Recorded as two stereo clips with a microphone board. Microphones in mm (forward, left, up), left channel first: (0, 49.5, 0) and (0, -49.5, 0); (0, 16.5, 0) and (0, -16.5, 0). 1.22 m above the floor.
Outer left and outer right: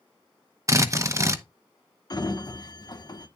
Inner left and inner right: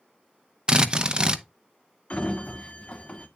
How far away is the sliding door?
About 1.2 m.